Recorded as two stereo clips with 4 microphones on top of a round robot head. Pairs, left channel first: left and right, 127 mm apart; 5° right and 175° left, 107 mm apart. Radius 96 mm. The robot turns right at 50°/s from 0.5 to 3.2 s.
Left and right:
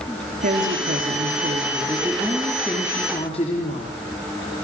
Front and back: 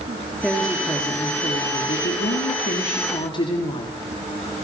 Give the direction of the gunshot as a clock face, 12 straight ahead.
No gunshot in this recording.